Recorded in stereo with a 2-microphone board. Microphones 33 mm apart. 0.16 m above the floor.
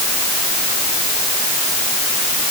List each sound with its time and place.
Only background noise.